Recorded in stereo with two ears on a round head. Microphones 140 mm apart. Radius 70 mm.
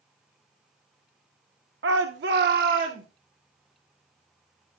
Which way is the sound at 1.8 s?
80° right.